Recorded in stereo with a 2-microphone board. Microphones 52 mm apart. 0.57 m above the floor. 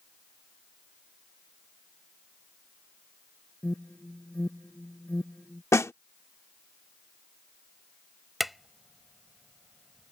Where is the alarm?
25° left (ahead or behind).